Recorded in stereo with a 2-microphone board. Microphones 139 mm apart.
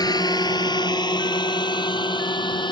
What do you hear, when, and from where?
0.0 s a drone: 30° left (ahead or behind); by 2.7 s 35° left (ahead or behind)